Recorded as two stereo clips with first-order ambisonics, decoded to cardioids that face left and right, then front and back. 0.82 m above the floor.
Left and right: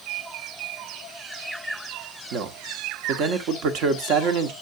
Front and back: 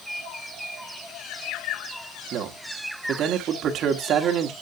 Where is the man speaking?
125° right, 1.6 m.